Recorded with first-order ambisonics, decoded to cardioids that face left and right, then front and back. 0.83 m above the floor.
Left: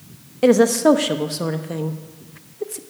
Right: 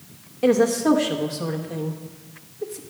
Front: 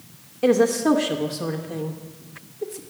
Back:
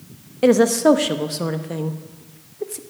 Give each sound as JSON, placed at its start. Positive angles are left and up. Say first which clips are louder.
{"t": 0.4, "sound": "a woman speaking", "louder": "left 4 dB, back 4 dB", "azimuth_deg": 140, "distance_m": 0.9}